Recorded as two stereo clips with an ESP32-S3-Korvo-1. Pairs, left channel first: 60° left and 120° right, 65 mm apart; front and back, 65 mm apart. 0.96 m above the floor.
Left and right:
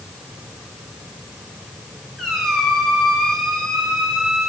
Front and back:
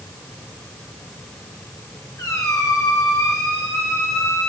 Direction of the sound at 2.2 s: 30° right.